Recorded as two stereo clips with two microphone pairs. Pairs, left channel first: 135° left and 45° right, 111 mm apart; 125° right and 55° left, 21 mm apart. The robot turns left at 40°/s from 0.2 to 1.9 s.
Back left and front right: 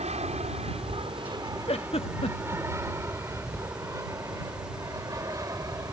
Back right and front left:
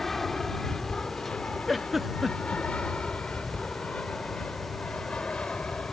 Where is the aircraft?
50° right; by 5.9 s 100° right.